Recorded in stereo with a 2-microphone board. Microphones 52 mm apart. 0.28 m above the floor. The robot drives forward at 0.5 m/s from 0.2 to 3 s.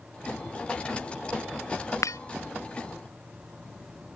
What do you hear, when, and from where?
2.0 s breaking glass: 80° left